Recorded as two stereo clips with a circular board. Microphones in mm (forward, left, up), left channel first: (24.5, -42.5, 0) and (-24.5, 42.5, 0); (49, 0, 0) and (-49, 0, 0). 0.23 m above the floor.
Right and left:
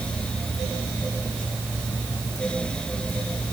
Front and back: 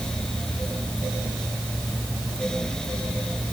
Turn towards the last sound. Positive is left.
No sound to turn to.